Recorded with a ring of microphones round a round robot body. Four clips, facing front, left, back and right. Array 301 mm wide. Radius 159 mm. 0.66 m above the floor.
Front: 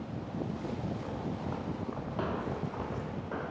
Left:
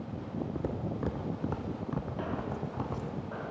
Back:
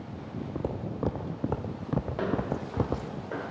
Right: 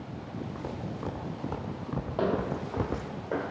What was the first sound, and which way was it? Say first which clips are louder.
Footsteps: left 2 dB, back 4 dB; 150° left.